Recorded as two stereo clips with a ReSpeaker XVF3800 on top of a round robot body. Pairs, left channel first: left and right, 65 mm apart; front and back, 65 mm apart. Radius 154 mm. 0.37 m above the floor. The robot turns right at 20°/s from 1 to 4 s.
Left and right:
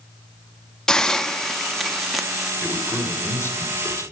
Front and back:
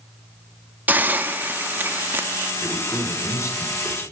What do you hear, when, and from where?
0.9 s a hiss: 160° left, 0.8 m; by 2.5 s 170° right, 0.8 m
2.6 s a man speaking: 25° left, 2 m; by 4.0 s 55° left, 2 m